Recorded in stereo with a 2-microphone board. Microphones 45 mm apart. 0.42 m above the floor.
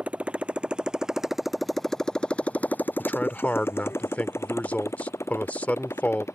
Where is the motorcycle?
30° right (ahead or behind); by 6.4 s 85° left.